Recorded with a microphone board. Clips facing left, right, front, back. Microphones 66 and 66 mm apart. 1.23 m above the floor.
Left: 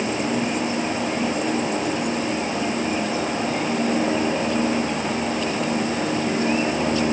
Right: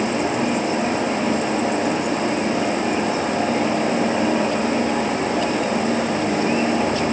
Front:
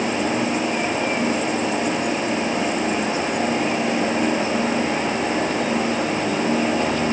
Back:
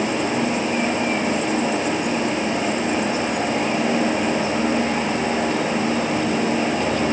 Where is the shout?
I don't hear a shout.